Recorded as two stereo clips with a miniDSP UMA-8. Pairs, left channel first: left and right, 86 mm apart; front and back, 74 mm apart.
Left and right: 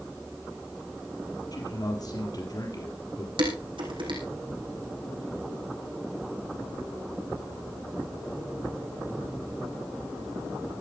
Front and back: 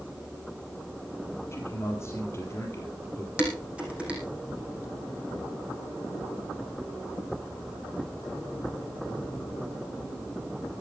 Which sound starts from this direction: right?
Dishes clattering, at 3.4 s.